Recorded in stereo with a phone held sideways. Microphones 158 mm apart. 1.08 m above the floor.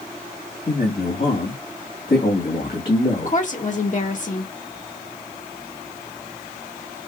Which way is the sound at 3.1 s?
55° left (ahead or behind).